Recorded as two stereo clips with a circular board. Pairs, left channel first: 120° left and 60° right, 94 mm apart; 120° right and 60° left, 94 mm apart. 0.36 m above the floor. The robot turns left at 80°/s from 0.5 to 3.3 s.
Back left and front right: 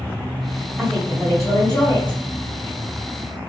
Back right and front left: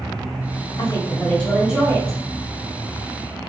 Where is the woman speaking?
145° right, 1.7 m; by 2.2 s 100° left, 1.7 m.